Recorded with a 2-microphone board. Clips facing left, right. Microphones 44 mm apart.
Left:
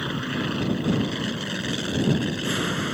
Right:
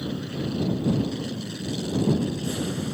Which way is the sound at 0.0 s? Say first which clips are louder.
Left 3 dB; 60° left (ahead or behind).